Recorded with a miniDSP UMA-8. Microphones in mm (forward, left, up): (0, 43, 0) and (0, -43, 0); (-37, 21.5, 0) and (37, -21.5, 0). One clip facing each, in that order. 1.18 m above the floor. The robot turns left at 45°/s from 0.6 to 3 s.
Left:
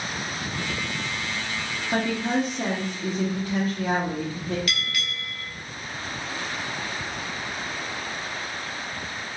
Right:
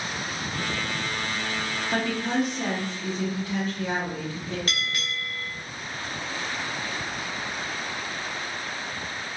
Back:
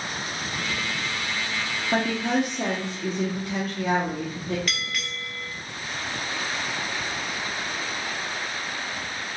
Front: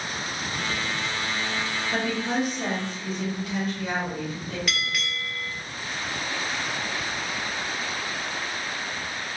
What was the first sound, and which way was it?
A woman speaking, straight behind.